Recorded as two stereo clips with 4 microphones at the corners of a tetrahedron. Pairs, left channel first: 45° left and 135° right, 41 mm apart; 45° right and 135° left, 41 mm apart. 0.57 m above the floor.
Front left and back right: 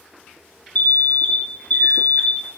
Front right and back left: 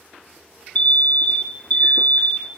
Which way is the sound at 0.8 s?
Straight ahead.